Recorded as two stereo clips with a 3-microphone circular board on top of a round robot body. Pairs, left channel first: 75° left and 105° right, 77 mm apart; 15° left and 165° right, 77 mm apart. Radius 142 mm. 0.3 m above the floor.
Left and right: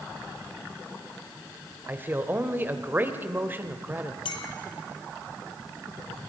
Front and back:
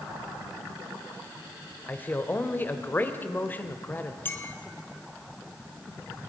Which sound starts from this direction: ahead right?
A man speaking, at 1.9 s.